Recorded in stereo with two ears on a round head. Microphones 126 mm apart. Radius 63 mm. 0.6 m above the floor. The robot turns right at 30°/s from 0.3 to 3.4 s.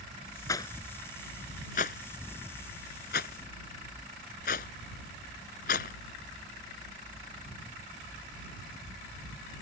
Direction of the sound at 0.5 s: 25° left (ahead or behind).